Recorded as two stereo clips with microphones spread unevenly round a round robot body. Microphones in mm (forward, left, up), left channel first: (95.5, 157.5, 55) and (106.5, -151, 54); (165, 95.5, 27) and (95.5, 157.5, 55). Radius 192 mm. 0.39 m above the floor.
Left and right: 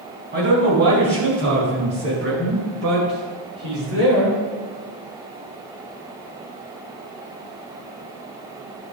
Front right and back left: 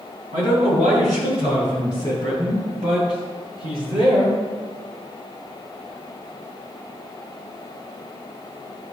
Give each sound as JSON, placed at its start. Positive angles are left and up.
{"t": 0.3, "sound": "a man speaking", "azimuth_deg": -150, "distance_m": 4.0}